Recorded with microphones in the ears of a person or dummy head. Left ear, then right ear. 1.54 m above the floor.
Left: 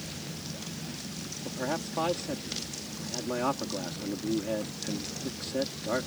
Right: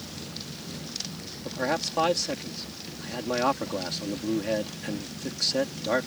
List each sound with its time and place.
1.4 s a man speaking: 35° right (ahead or behind)